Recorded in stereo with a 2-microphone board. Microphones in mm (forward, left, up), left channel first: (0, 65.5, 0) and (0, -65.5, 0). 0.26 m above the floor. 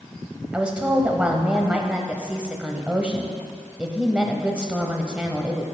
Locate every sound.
0.5 s a woman speaking: 10° right (ahead or behind), 0.9 m